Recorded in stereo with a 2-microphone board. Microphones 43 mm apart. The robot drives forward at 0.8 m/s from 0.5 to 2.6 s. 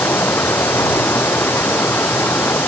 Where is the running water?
80° left; by 2.7 s 75° left (ahead or behind).